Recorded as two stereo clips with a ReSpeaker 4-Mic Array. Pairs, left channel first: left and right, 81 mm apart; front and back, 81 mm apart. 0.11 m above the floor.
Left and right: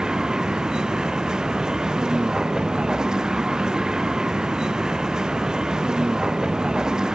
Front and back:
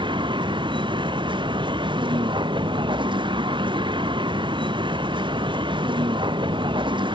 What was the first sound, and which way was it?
A vehicle, 170° right.